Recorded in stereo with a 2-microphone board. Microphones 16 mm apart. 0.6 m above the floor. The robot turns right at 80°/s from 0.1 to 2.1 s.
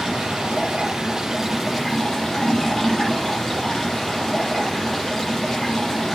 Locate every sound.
0.0 s running water: 130° right, 7 m; by 6.2 s 30° left, 7 m